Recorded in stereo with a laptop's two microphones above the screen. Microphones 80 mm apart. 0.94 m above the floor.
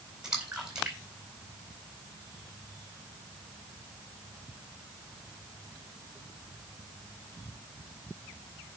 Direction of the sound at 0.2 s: 10° right (ahead or behind).